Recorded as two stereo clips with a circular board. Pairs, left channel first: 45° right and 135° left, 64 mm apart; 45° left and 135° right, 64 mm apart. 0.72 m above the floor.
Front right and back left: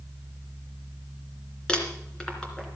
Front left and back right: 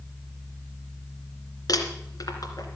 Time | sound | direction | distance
1.7 | crumpling | 30° left | 2.5 m